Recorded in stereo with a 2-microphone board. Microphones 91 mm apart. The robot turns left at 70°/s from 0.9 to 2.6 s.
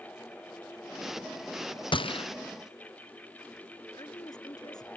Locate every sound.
1.9 s a gunshot: 60° left (ahead or behind); by 2.2 s 70° left (ahead or behind)
3.9 s a woman speaking: 45° left (ahead or behind)